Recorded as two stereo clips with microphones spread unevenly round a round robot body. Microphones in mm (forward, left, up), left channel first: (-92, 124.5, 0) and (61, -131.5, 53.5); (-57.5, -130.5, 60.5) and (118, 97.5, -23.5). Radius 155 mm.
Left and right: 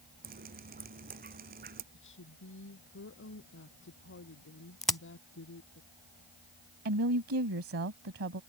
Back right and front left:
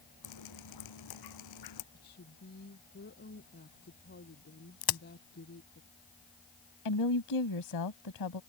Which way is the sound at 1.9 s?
175° left.